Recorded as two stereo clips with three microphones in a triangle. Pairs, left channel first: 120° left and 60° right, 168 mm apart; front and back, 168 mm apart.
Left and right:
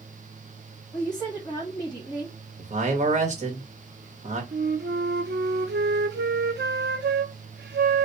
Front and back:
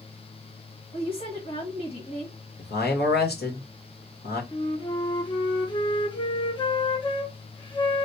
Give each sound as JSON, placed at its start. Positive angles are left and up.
{"t": 0.9, "sound": "a woman speaking", "azimuth_deg": 35, "distance_m": 1.5}
{"t": 2.6, "sound": "a man speaking", "azimuth_deg": -15, "distance_m": 1.3}
{"t": 4.5, "sound": "a flute", "azimuth_deg": -60, "distance_m": 0.6}